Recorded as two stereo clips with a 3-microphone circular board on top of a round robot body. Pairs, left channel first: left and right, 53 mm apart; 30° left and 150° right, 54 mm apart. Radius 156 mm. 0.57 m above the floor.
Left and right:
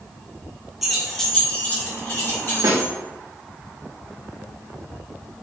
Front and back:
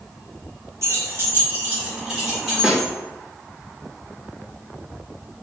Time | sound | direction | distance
0.8 | keys jangling | 170° right | 1.1 m
2.6 | a snare drum | 70° right | 0.6 m